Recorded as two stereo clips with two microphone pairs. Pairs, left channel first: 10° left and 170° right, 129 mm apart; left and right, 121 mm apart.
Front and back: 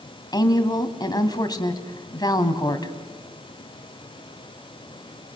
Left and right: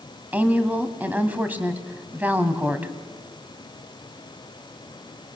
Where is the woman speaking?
25° right, 1.9 m.